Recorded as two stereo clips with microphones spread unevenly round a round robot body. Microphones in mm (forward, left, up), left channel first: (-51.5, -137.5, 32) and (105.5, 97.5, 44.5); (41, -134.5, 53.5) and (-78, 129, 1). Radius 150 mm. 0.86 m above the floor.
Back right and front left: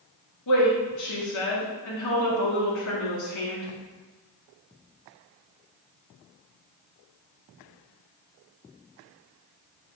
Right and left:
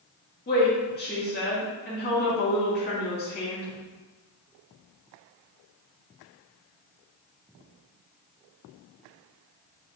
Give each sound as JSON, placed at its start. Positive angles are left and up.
{"t": 0.5, "sound": "a woman speaking", "azimuth_deg": -125, "distance_m": 1.8}